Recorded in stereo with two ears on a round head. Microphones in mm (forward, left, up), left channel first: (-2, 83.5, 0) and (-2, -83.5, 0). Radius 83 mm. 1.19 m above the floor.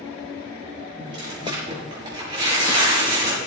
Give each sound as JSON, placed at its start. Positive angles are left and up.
{"t": 1.0, "sound": "tearing paper", "side_deg": -25, "distance_m": 6.5}